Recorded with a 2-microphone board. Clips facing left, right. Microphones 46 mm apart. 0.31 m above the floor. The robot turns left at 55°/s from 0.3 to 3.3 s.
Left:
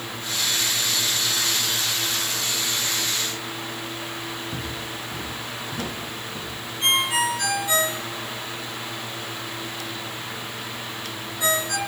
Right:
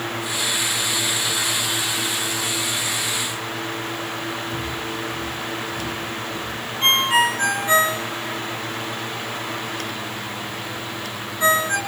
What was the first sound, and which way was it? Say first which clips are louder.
Footsteps: right 5 dB; 85° left.